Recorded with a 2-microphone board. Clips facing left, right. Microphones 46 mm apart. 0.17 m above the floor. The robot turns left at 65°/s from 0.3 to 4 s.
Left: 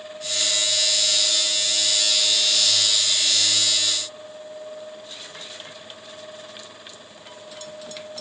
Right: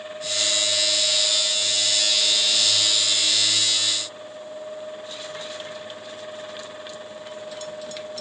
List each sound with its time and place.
Only background noise.